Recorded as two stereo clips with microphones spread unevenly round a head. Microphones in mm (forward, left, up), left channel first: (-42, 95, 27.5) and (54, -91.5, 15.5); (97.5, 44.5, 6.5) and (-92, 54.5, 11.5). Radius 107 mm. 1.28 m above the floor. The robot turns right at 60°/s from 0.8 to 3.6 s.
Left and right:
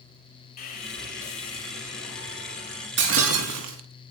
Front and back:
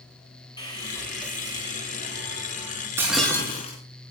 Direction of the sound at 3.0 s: 105° right.